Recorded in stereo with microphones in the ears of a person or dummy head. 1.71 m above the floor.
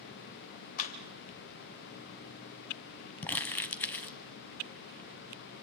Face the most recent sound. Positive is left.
turn(degrees=10)  # may be behind; listen again after turning